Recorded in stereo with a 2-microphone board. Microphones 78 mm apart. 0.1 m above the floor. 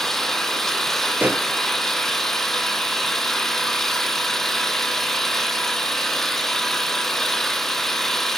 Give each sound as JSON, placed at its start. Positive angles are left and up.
{"t": 0.0, "sound": "an engine running", "side_deg": 5, "distance_m": 0.9}
{"t": 1.2, "sound": "a pop", "side_deg": -20, "distance_m": 1.0}